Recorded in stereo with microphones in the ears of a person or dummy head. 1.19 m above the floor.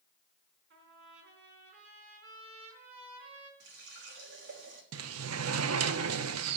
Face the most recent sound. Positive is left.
turn(degrees=-75)  # may be behind; listen again after turning